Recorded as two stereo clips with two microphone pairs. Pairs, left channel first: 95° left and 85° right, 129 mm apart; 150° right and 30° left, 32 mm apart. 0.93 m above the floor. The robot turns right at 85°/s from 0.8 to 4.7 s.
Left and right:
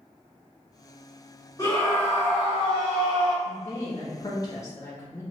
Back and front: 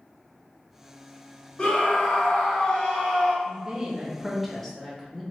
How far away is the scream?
About 1.3 m.